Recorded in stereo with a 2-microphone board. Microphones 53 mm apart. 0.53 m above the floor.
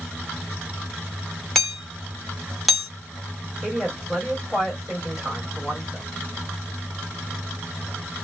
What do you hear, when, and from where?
1.6 s hammering: centre (ahead or behind), 1.1 m
3.6 s a woman speaking: 5° right (ahead or behind), 1.7 m